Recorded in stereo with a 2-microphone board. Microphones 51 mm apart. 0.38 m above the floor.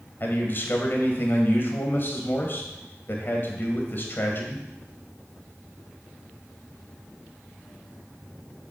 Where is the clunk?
No clunk in this recording.